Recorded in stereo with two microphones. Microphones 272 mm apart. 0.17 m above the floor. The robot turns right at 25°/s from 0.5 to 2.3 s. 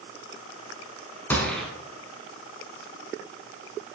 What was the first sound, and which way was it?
A gunshot, 10° left (ahead or behind).